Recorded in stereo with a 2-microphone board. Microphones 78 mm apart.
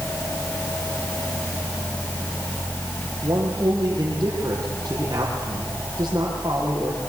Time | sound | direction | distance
3.2 | a man speaking | 45° right (ahead or behind) | 6.5 m